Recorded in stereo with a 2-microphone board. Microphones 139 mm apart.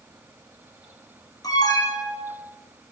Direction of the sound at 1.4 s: 25° left (ahead or behind).